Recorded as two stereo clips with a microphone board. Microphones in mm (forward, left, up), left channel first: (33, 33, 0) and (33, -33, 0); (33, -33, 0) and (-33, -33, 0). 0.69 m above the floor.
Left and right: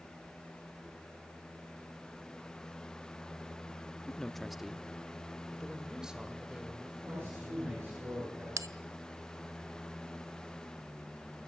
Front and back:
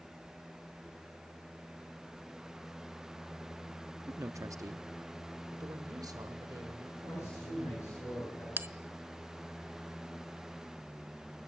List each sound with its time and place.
4.1 s a man speaking: 165° left, 0.7 m; by 8.1 s 165° right, 3.5 m
7.1 s a man speaking: 50° right, 10 m
8.6 s a bell: 120° right, 0.6 m